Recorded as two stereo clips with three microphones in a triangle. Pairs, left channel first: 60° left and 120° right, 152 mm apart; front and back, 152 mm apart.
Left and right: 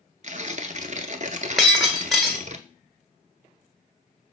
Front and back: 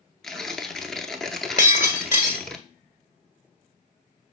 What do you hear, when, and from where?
0.2 s tearing paper: 85° right, 0.6 m
1.6 s breaking glass: 30° right, 1.2 m